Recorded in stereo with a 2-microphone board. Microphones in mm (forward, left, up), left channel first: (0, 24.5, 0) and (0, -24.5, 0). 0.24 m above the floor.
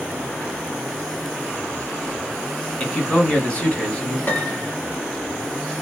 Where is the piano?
45° left (ahead or behind), 1.0 m.